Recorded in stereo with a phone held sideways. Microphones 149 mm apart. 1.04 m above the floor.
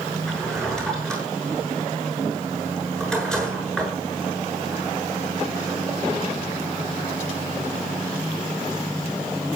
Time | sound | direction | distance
0.3 | a drawer | 5° left (ahead or behind) | 7 m